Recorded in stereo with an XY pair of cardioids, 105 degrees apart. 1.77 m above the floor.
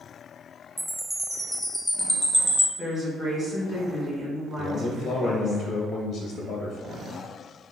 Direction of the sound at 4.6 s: 55° left.